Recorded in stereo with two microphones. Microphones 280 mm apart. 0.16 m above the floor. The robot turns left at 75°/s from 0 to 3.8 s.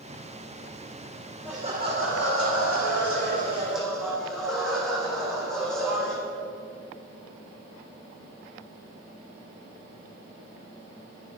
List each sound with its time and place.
1.4 s laughter: 5° right, 7 m; by 6.2 s straight behind, 7 m